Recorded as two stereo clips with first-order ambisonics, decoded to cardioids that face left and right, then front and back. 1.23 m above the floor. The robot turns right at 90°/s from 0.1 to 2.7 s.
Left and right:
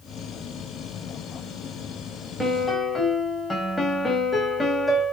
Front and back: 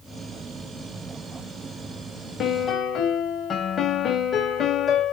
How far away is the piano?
About 1.1 m.